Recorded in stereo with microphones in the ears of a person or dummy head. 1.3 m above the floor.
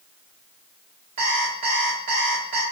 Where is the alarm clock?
40° right (ahead or behind), 1.1 m.